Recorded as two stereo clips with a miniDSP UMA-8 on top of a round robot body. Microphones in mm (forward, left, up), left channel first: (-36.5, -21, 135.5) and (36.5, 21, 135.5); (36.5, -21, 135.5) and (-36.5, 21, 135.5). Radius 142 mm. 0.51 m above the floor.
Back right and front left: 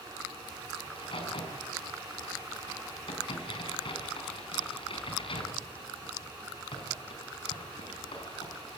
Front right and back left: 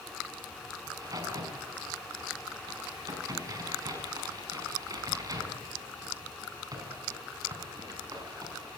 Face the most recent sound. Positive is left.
turn(degrees=-160)